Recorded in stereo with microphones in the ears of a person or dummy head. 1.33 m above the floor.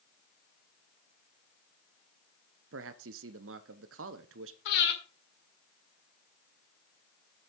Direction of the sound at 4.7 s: 65° left (ahead or behind).